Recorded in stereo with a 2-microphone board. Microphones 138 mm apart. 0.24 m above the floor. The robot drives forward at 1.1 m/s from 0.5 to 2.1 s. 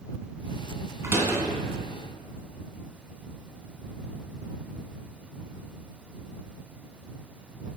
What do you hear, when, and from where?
1.0 s a door slam: 20° right (ahead or behind), 1.8 m; by 1.4 s 15° right (ahead or behind), 2 m